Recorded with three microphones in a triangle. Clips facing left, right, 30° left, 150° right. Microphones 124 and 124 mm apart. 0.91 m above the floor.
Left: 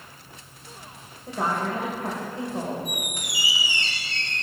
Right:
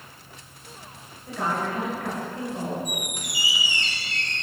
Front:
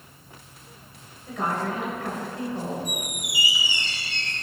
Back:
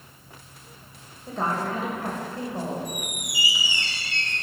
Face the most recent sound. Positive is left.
turn(degrees=-40)